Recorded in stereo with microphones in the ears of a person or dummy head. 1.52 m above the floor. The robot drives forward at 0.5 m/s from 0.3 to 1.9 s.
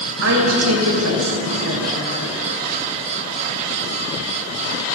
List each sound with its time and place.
0.2 s a woman speaking: 75° right (ahead or behind), 1.3 m; by 2.5 s 70° right (ahead or behind), 1.3 m